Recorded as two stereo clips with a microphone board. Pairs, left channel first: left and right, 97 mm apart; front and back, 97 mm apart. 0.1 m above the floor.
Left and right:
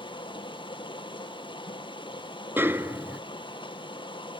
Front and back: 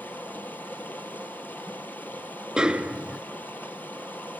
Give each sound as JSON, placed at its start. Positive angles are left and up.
{"t": 0.0, "sound": "running water", "azimuth_deg": 70, "distance_m": 3.0}
{"t": 2.6, "sound": "a snare drum", "azimuth_deg": -115, "distance_m": 0.8}